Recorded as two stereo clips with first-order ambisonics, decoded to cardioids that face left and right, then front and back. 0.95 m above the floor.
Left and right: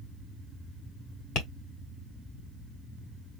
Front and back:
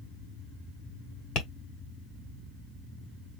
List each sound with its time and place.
1.4 s tapping: 45° left, 1.6 m